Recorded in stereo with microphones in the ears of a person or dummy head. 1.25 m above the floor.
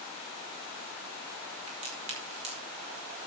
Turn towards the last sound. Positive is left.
turn(degrees=-35)  # may be behind; listen again after turning